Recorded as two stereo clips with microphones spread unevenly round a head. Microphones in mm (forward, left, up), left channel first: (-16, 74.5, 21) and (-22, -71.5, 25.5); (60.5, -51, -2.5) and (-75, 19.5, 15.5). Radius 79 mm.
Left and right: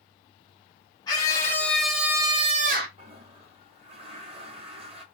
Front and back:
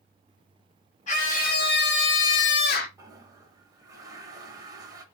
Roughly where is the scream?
Ahead.